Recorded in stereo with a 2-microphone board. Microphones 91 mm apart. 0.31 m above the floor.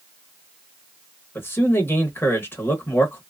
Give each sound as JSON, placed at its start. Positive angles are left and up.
{"t": 1.4, "sound": "a man speaking", "side_deg": 25, "distance_m": 0.9}